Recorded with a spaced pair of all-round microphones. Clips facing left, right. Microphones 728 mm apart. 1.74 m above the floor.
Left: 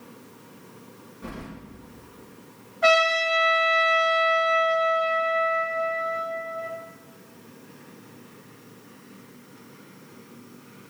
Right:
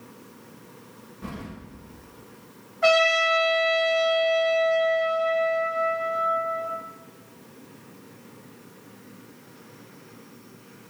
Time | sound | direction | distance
1.2 | keys jangling | 30° right (ahead or behind) | 1.9 m
2.8 | a trumpet | centre (ahead or behind) | 1.0 m